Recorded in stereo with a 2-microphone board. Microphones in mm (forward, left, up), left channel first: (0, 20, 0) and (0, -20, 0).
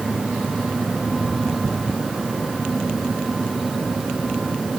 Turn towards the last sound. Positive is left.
No sound to turn to.